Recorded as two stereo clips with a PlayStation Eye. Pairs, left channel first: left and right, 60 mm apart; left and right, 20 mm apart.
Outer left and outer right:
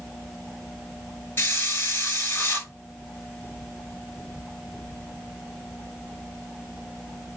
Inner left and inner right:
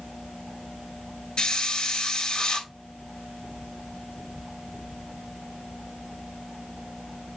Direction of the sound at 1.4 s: 40° left (ahead or behind).